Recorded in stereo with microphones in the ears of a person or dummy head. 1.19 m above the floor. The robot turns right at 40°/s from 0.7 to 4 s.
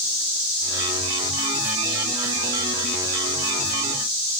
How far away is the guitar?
No guitar in this recording.